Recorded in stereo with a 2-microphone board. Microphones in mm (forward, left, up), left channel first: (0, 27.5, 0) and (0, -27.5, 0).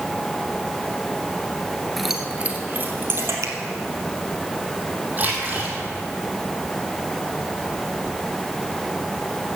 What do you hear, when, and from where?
2.0 s keys jangling: 5° left (ahead or behind), 1.4 m; by 3.3 s 50° right (ahead or behind), 2.5 m
3.4 s a finger snap: 60° right (ahead or behind), 1.8 m
5.2 s a splash: 30° right (ahead or behind), 3.5 m